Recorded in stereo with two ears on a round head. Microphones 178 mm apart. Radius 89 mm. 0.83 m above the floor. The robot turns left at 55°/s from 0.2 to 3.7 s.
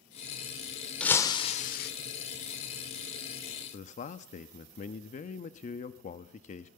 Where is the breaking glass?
175° left, 1.7 m; by 1.9 s 125° left, 1.7 m.